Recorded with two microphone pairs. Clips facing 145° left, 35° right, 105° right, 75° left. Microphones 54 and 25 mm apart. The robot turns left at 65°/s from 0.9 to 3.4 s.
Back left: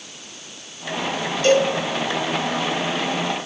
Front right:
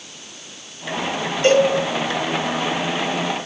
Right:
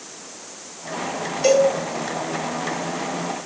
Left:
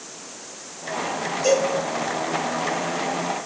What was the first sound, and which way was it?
A cowbell, 80° right.